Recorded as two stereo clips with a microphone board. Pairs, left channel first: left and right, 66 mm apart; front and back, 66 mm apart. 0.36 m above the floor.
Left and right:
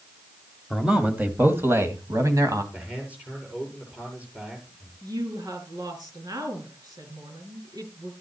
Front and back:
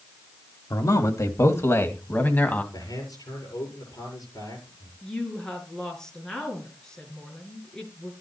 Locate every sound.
0.7 s a man speaking: 10° right, 1.7 m; by 2.6 s 65° right, 2 m
2.7 s a man speaking: 20° right, 7.5 m
5.0 s a woman speaking: 80° right, 4.5 m